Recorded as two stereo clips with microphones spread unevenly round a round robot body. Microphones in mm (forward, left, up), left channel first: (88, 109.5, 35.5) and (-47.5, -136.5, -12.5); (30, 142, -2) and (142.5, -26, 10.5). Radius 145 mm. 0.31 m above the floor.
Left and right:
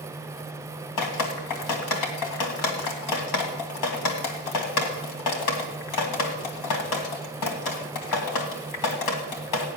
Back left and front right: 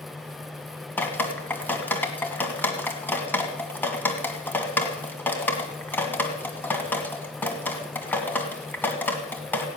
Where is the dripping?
45° left, 2.5 m.